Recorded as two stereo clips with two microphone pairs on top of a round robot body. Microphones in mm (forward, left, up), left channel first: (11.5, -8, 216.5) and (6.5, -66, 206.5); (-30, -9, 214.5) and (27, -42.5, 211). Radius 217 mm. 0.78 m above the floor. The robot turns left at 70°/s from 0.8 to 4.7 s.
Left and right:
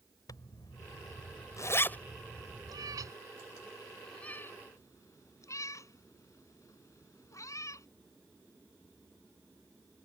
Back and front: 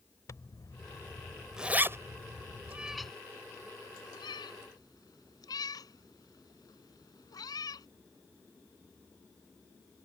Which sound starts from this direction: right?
A cat meowing, at 2.7 s.